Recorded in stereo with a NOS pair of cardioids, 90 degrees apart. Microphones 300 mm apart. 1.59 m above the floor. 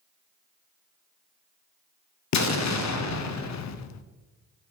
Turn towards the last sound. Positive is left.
turn(degrees=65)